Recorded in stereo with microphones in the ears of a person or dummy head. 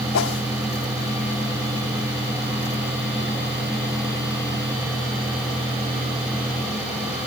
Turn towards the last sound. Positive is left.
turn(degrees=80)